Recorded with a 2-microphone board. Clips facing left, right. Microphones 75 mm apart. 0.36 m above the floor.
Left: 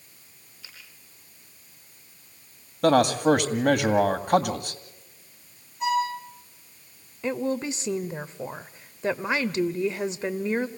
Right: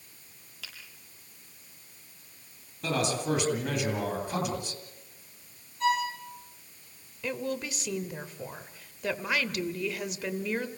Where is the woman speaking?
25° left (ahead or behind), 0.9 m.